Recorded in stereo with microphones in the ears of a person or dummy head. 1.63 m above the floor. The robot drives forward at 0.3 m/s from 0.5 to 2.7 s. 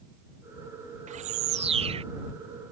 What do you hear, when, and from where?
1.1 s a bird: 35° right (ahead or behind); by 2.0 s 30° right (ahead or behind)